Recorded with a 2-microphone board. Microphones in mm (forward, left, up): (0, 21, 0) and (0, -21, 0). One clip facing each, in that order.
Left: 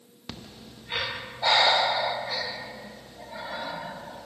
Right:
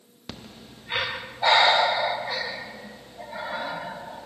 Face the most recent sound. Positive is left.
turn(degrees=-20)  # may be behind; listen again after turning